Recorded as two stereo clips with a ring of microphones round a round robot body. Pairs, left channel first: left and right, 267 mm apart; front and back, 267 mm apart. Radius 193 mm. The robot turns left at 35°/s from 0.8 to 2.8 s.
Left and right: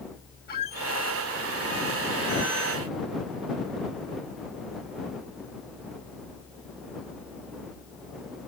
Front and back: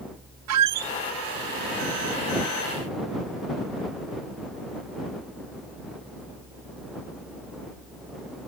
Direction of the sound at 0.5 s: 155° left.